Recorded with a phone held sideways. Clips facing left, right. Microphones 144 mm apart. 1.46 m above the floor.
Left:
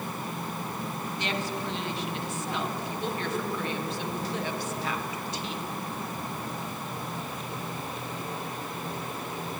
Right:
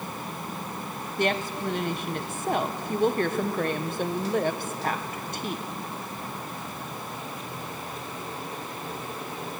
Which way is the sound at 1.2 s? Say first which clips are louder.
Right 7 dB; 55° right (ahead or behind).